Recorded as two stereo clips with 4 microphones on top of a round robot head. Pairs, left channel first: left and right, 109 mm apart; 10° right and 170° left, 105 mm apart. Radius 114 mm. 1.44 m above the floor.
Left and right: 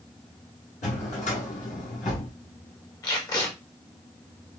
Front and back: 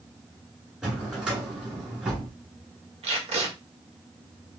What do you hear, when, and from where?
0.8 s a drawer: 90° left, 1.6 m
3.0 s tape being pulled: 145° left, 1.5 m